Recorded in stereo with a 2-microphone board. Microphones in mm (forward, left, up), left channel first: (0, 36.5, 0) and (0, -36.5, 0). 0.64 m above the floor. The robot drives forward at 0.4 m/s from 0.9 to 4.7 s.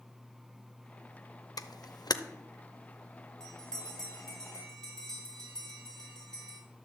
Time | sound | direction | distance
1.6 | a camera shutter | 55° left (ahead or behind) | 0.6 m
3.4 | a bell | 10° left (ahead or behind) | 4 m